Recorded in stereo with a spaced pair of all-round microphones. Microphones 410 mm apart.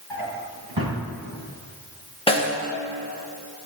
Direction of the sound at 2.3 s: 15° left (ahead or behind).